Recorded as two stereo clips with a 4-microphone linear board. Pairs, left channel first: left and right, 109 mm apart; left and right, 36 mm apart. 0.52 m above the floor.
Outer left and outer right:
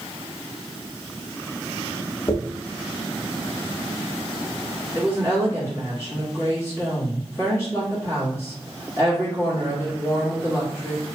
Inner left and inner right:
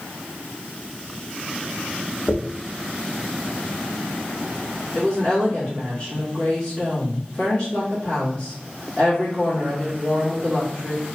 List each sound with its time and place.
2.3 s a dropped coin: 50° left (ahead or behind), 0.6 m
5.0 s a woman speaking: 25° left (ahead or behind), 1.0 m